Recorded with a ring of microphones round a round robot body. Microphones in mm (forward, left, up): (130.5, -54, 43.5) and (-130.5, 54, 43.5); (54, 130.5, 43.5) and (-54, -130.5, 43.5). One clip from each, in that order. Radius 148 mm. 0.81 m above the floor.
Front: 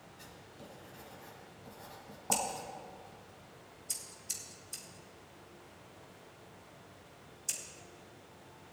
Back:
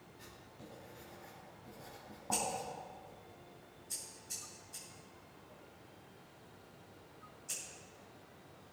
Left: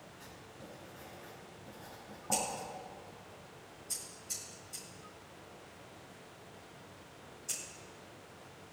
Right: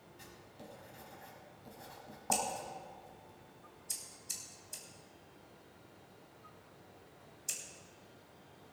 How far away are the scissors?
About 3.5 m.